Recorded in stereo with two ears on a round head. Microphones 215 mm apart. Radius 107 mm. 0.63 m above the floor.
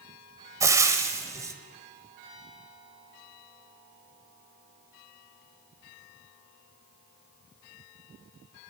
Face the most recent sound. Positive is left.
turn(degrees=-15)  # may be behind; listen again after turning